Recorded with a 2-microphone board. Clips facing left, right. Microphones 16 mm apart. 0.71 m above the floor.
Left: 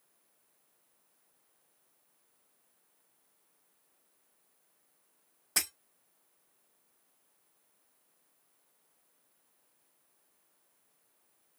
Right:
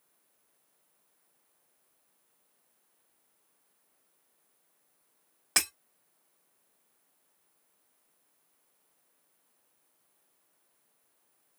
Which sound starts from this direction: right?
Breaking glass, at 5.6 s.